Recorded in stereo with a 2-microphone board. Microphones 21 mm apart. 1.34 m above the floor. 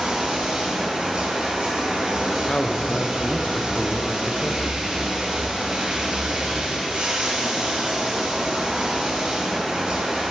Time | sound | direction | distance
0.0 | running water | 55° right (ahead or behind) | 2 m
2.5 | a man speaking | 50° left (ahead or behind) | 0.6 m